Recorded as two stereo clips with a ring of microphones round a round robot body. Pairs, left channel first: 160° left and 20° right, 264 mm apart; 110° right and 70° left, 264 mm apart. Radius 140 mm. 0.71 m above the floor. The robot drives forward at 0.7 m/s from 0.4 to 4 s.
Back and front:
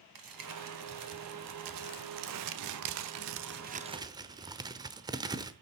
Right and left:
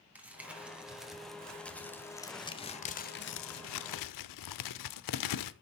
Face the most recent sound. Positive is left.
turn(degrees=-100)